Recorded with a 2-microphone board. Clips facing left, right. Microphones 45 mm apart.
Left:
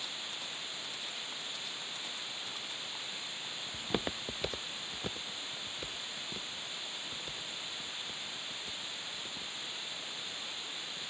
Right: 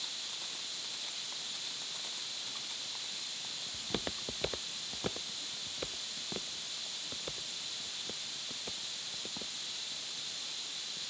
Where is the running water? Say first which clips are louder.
Left 2 dB; 20° left (ahead or behind).